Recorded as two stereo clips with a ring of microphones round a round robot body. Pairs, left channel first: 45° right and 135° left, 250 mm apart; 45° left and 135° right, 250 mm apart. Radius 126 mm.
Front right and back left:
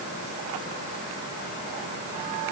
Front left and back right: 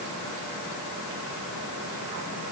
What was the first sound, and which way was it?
Only background noise.